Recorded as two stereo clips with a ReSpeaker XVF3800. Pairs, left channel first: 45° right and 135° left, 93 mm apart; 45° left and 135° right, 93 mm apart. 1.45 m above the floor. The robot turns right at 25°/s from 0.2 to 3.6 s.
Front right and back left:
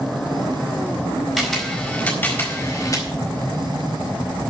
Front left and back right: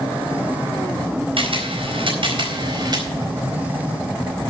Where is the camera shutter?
140° right, 4 m; by 3.1 s 100° right, 4 m.